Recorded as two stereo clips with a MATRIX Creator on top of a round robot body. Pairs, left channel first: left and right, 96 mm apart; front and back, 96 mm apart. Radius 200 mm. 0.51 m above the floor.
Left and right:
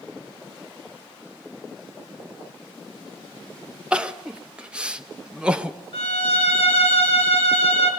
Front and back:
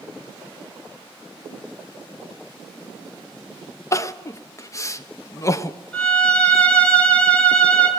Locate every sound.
3.9 s crying: 20° right, 1.2 m
5.9 s a violin: 75° left, 4 m